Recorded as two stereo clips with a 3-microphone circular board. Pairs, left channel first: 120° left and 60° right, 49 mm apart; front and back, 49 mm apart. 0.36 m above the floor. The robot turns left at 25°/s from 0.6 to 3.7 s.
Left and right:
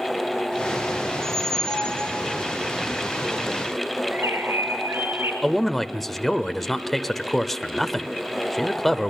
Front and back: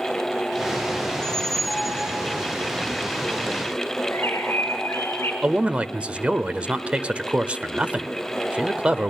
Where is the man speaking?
155° right, 0.9 m.